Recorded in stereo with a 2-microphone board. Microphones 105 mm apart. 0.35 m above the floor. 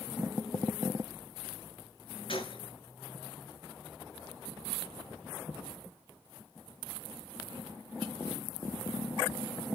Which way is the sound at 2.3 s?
60° left (ahead or behind).